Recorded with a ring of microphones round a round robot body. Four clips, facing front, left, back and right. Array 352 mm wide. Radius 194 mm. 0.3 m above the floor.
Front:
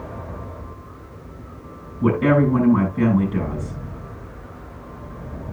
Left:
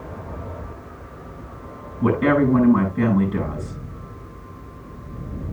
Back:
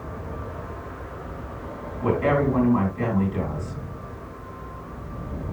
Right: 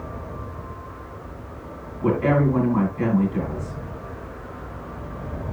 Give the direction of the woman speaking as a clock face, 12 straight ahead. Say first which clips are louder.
Left 2 dB, front 4 dB; 10 o'clock.